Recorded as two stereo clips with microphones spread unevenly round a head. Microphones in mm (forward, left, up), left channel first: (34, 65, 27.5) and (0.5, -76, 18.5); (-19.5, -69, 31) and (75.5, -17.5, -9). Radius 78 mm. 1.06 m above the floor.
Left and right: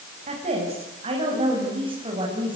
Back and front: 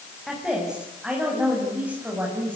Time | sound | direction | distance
0.3 | a woman speaking | 60° right | 7.5 m